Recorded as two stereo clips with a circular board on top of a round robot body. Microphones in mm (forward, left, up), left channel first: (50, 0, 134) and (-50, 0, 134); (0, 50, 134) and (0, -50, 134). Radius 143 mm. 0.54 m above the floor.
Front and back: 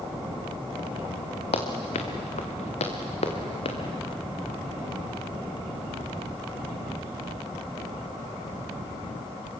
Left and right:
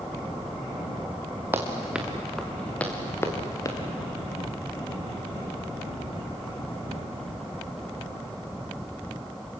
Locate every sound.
1.5 s running footsteps: 20° right, 3 m; by 3.8 s 35° left, 4 m